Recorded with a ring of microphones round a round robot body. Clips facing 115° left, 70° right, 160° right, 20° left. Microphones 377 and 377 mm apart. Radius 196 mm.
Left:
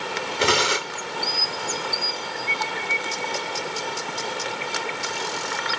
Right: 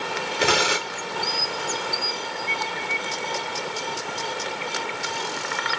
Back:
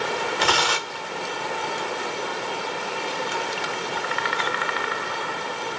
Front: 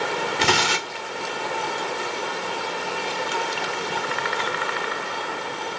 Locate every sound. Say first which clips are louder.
0.4 s tearing paper: left 1 dB, front 2 dB; 30° left, 0.9 m